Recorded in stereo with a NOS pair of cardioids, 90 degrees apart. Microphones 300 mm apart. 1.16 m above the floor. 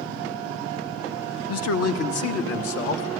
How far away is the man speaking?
About 1.1 m.